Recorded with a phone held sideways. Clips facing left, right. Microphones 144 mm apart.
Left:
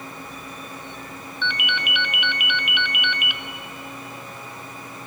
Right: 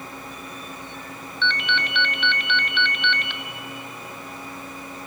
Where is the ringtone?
10° left (ahead or behind), 0.6 m.